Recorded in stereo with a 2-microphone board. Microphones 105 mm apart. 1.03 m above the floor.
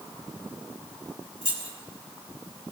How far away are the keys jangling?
About 2.5 m.